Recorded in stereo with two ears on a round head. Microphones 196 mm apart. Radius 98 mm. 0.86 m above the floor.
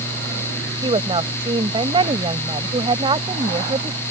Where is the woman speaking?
25° right (ahead or behind).